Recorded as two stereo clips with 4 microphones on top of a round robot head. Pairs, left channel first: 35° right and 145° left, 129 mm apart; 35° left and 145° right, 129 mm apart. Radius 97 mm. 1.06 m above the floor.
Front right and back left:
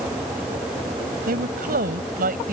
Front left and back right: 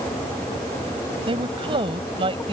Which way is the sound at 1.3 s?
160° left.